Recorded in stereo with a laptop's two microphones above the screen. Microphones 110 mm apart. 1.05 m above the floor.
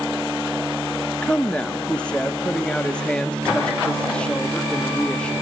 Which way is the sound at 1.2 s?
10° left (ahead or behind).